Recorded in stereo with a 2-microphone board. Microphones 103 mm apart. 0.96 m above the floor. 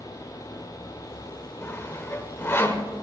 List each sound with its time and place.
1.6 s sawing: 25° left (ahead or behind), 1.3 m